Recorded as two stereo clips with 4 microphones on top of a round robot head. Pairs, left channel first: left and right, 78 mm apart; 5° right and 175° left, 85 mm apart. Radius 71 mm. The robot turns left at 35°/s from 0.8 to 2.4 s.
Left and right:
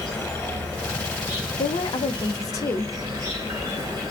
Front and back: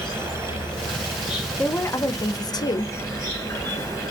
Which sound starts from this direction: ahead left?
A woman speaking, at 1.6 s.